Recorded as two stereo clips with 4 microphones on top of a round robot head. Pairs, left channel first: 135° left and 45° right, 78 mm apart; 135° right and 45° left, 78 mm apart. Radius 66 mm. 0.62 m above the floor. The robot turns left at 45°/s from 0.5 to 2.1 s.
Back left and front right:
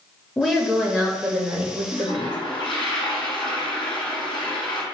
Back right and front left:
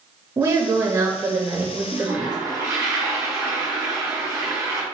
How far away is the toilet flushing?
About 1.4 m.